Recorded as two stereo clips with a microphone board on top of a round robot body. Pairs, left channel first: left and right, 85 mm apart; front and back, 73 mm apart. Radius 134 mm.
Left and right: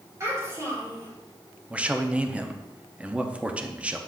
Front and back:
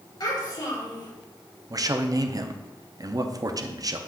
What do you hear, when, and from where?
0.2 s a child speaking: 35° right, 3 m
1.7 s a man speaking: 165° right, 0.8 m